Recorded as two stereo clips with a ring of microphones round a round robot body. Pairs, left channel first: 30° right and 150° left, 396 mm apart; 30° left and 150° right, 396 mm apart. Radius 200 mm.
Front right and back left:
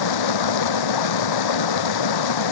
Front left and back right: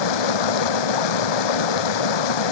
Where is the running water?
5° left.